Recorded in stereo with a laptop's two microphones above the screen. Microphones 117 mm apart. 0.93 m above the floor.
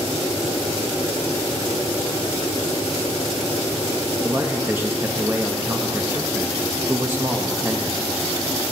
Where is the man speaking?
20° right (ahead or behind), 0.9 m.